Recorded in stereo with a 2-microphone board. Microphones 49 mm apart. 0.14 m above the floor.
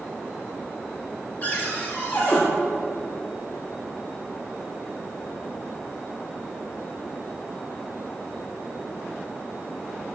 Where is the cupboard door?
35° left (ahead or behind), 2 m.